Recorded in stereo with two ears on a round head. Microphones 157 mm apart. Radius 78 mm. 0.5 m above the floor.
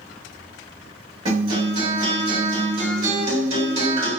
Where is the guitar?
35° right (ahead or behind), 2.0 m.